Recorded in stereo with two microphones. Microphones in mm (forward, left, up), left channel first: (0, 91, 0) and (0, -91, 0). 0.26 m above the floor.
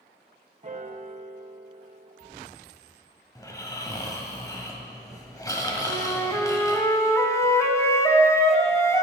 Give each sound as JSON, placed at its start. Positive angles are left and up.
{"t": 0.6, "sound": "a piano", "side_deg": -40, "distance_m": 0.6}
{"t": 3.4, "sound": "snoring", "side_deg": 20, "distance_m": 1.4}
{"t": 5.9, "sound": "a flute", "side_deg": 15, "distance_m": 1.0}